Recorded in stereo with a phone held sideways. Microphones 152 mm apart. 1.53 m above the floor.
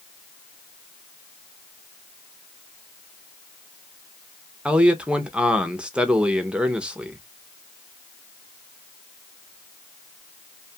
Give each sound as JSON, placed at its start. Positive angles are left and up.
{"t": 4.7, "sound": "a man speaking", "side_deg": -5, "distance_m": 0.6}